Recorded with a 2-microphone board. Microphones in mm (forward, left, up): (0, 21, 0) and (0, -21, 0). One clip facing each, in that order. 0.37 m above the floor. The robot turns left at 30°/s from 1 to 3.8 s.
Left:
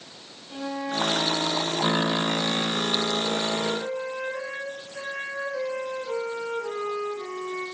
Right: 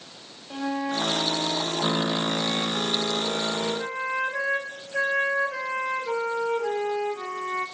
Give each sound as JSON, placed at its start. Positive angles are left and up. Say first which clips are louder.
{"t": 0.5, "sound": "a flute", "louder": "right 2 dB", "azimuth_deg": -30, "distance_m": 1.5}